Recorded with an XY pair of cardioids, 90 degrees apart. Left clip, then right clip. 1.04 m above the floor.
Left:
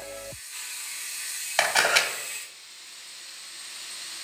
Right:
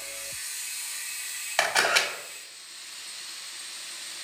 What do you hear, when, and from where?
1.6 s a camera shutter: straight ahead, 0.8 m